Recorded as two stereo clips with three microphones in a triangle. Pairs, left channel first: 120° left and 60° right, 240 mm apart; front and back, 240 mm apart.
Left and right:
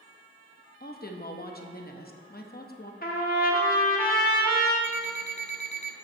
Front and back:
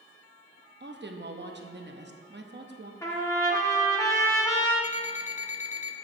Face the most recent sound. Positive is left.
turn(degrees=60)